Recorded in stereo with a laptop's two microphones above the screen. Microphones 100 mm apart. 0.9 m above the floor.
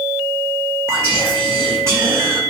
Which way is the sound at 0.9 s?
35° right (ahead or behind).